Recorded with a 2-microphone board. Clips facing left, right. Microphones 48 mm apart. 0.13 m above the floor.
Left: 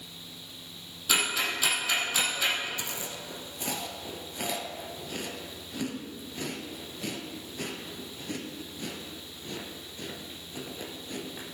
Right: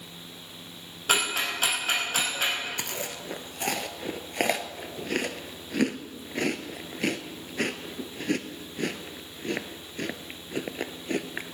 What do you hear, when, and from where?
1.1 s ticking: 45° right (ahead or behind), 4.5 m
2.8 s chewing: 60° right (ahead or behind), 0.8 m